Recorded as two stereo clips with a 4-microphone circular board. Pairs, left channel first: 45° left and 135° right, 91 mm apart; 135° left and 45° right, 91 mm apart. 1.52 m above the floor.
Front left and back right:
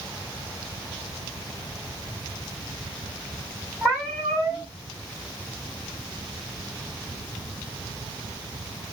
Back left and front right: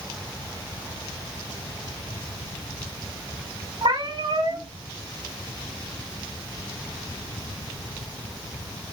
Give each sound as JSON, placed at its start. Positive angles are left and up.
{"t": 3.8, "sound": "a cat meowing", "azimuth_deg": -50, "distance_m": 3.5}